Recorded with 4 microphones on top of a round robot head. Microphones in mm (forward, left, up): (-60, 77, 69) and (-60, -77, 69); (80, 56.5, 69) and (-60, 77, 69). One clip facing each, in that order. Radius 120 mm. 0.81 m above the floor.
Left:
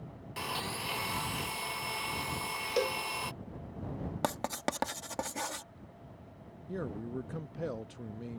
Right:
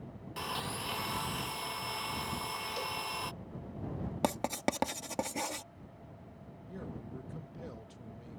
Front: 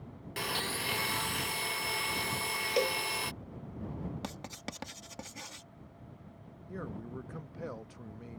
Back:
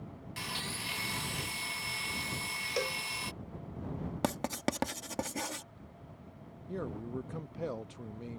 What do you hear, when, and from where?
0.4 s a blender: 5° left
2.8 s a cowbell: 50° left
4.2 s writing: 160° right
6.7 s a man speaking: 105° left